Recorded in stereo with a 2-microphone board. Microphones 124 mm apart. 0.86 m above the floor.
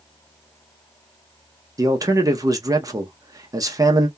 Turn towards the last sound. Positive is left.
turn(degrees=-30)  # may be behind; listen again after turning